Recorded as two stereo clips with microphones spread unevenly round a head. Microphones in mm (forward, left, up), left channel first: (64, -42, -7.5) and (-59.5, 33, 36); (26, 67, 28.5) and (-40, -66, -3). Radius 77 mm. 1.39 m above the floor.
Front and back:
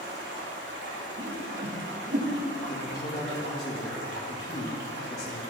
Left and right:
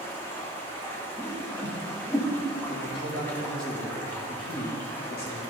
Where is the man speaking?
35° left, 2.5 m.